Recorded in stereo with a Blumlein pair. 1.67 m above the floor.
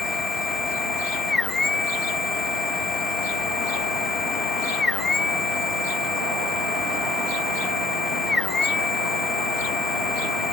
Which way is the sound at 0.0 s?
15° left.